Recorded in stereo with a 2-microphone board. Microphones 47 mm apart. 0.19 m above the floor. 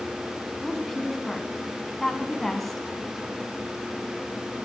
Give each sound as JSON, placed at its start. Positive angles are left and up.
{"t": 0.6, "sound": "a woman speaking", "side_deg": 5, "distance_m": 1.3}